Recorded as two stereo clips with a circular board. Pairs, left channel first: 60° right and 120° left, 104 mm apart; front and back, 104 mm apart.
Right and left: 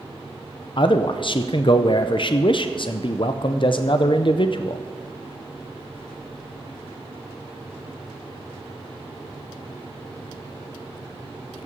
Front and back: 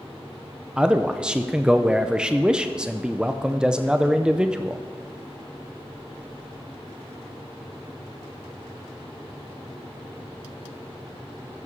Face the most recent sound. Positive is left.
turn(degrees=-100)